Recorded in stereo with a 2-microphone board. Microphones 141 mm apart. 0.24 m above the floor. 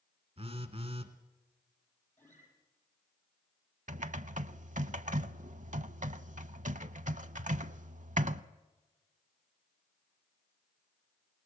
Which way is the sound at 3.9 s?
60° right (ahead or behind).